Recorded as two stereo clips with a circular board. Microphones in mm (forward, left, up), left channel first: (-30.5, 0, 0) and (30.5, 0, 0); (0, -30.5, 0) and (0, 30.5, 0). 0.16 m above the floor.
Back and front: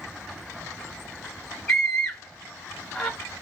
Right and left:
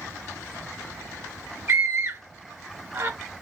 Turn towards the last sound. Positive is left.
turn(degrees=100)